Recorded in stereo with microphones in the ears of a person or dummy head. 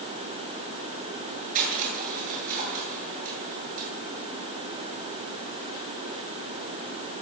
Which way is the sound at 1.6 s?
45° right (ahead or behind).